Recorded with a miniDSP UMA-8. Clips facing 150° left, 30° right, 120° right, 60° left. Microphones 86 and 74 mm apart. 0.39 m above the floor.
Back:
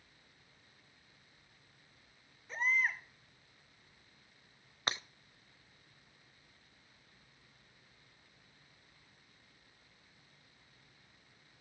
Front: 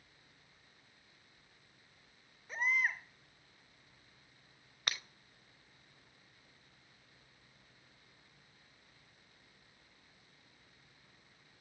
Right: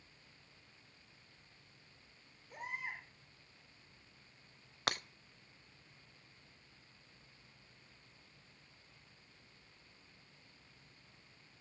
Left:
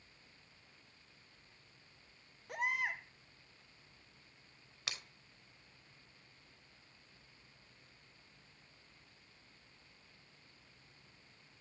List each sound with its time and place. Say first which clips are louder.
2.5 s a baby crying: back 1 dB, left 7 dB; 55° left, 2.5 m
4.9 s breaking glass: back 4 dB, right 10 dB; 150° right, 0.7 m